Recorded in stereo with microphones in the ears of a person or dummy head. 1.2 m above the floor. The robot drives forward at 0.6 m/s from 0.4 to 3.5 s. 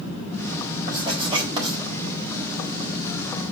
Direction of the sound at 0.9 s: 25° right (ahead or behind).